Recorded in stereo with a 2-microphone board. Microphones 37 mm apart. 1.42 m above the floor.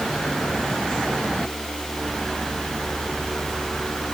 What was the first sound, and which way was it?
Only background noise.